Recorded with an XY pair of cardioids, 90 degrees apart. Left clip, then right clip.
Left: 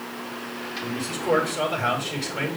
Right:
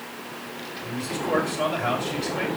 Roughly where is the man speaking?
Ahead left.